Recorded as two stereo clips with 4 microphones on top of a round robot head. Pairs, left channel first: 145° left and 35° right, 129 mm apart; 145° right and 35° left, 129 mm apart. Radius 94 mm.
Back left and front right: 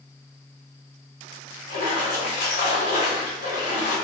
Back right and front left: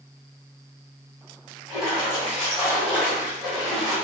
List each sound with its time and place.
1.7 s a splash: 120° left, 1.3 m